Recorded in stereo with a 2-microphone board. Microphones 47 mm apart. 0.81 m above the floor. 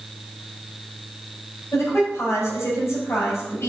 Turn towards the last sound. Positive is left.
turn(degrees=70)  # may be behind; listen again after turning